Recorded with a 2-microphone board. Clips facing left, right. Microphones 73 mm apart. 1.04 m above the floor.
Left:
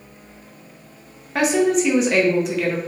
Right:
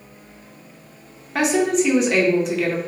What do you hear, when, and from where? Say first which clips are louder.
1.4 s a woman speaking: left 1 dB; centre (ahead or behind), 0.7 m